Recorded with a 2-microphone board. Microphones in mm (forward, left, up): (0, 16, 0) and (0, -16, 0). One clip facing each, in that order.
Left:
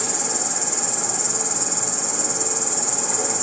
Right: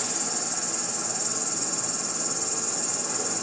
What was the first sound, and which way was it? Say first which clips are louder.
An insect: left 5 dB; 85° left.